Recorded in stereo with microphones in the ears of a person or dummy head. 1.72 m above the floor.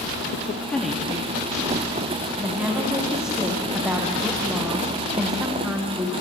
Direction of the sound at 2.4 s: 10° right (ahead or behind).